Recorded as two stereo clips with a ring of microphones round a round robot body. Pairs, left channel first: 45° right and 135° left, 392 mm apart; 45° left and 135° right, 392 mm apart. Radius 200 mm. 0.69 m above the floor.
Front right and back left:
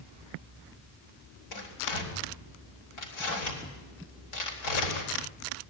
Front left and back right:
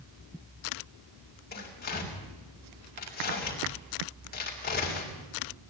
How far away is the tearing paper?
About 4 m.